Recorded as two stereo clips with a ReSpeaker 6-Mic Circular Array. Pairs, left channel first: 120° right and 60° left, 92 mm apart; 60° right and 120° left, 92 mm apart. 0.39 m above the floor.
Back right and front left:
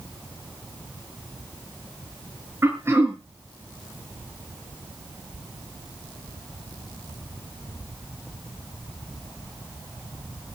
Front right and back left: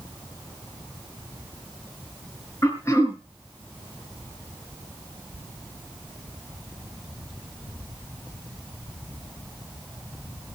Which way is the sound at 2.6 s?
Straight ahead.